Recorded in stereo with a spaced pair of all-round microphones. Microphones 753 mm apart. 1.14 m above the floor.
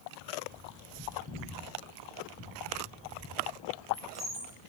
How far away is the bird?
About 5.5 m.